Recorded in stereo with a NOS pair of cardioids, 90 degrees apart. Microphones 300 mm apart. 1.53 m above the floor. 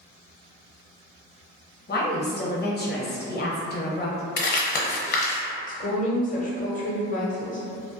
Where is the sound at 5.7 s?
25° left, 0.7 m.